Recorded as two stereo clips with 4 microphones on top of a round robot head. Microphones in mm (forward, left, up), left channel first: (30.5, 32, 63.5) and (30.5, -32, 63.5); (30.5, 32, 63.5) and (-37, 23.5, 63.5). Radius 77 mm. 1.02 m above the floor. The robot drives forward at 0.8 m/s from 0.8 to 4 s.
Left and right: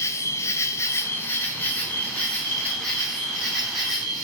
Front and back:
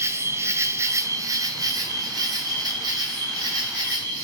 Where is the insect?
135° left, 1.0 m; by 4.2 s 170° left, 3.5 m.